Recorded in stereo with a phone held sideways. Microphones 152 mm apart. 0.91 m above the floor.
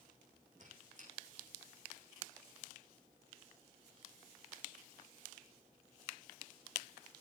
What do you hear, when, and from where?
0.6 s a squeak: 55° right (ahead or behind), 7.5 m